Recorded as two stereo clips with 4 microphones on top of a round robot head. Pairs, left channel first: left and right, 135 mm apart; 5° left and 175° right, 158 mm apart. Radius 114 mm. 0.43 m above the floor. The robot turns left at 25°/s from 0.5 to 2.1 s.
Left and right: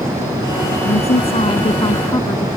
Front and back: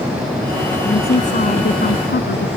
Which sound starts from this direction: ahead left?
A woman speaking, at 0.8 s.